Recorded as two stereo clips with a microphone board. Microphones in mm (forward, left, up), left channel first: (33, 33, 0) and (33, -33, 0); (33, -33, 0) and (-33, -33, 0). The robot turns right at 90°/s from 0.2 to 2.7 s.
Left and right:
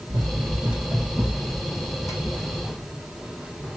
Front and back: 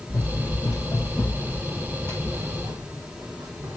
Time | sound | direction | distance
0.1 | running footsteps | 75° right | 1.9 m